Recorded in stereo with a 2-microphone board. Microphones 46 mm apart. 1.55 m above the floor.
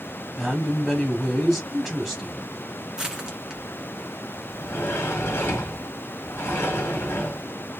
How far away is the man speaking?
About 0.9 m.